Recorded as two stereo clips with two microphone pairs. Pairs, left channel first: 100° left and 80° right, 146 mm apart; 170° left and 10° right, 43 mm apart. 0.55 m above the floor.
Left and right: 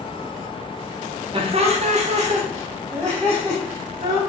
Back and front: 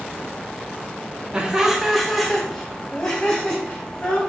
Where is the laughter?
65° right, 0.8 m; by 4.2 s 125° right, 2.5 m.